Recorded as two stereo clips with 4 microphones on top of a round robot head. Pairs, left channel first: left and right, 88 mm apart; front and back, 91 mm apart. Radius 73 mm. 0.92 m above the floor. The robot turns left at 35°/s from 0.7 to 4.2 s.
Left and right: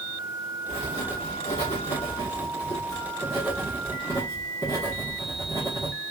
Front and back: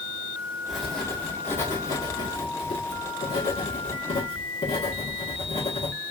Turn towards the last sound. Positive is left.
turn(degrees=-30)